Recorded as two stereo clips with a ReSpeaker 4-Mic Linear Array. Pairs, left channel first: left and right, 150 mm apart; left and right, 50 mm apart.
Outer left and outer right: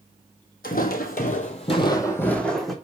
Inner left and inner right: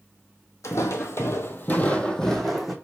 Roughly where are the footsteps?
Left.